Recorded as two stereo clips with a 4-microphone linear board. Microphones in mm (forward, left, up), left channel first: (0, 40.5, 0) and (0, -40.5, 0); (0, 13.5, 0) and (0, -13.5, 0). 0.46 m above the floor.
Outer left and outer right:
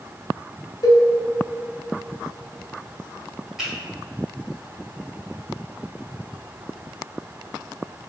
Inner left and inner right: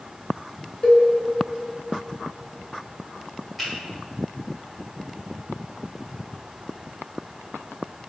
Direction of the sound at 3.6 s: 5° right (ahead or behind).